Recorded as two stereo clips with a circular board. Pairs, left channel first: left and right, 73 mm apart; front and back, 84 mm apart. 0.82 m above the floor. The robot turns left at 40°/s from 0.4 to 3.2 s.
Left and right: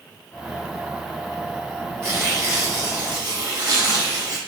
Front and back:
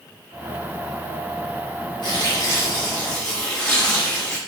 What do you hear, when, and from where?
2.0 s tearing paper: 30° right, 0.9 m; by 4.4 s 80° right, 0.9 m